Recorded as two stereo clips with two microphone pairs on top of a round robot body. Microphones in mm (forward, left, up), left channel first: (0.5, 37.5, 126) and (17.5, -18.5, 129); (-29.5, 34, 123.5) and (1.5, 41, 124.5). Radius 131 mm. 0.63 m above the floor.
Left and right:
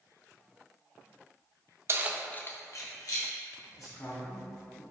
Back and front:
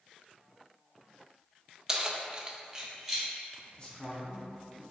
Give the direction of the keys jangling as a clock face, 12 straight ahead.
2 o'clock.